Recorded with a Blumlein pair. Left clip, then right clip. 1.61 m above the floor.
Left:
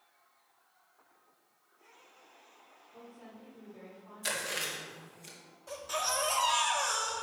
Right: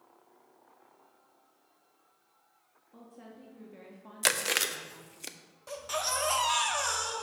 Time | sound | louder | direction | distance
2.9 | a woman speaking | right 1 dB | 65° right | 1.8 m
4.2 | chewing | right 6 dB | 40° right | 0.6 m
5.7 | a baby crying | right 1 dB | 20° right | 1.2 m